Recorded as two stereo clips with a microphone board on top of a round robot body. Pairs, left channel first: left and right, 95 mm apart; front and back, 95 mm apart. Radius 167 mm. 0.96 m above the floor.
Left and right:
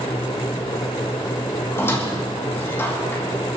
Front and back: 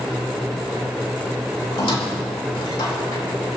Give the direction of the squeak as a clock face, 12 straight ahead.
11 o'clock.